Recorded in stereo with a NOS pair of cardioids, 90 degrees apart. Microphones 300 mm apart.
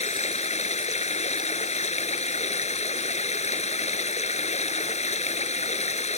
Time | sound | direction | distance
0.0 | running water | 20° left | ?